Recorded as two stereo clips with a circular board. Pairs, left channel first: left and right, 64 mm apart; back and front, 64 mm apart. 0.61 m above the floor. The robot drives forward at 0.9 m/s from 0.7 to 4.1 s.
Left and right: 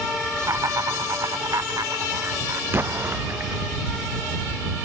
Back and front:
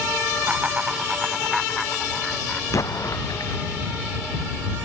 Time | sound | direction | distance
0.4 | laughter | 65° right | ?
2.7 | an explosion | 145° right | ?